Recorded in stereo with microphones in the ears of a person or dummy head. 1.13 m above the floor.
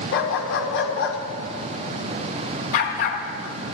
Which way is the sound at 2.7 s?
40° left (ahead or behind).